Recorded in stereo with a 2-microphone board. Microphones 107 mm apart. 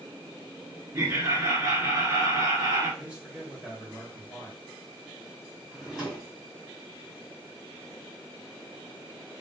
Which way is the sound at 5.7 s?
5° right (ahead or behind).